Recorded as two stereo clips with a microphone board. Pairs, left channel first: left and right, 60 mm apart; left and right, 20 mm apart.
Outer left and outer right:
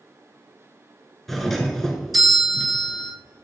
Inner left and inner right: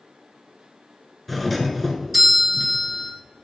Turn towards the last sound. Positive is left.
turn(degrees=5)  # may be behind; listen again after turning